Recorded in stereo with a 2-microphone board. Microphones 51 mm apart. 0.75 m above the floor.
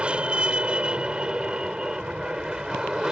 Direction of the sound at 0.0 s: 25° right (ahead or behind).